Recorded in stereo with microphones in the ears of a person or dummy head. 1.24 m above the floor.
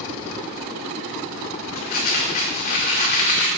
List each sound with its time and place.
1.8 s crumpling: 45° left (ahead or behind), 2.5 m